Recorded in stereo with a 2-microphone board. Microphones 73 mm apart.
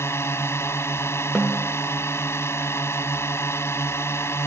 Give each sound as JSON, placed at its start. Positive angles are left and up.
{"t": 0.0, "sound": "a drone", "side_deg": 40}
{"t": 1.4, "sound": "a snare drum", "side_deg": -10}